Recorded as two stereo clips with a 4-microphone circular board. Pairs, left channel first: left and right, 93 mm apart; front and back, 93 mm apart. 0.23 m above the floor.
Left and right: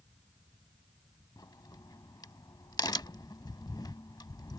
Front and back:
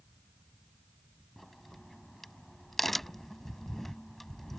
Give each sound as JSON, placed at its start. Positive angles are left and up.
{"t": 1.4, "sound": "a crack", "azimuth_deg": 85}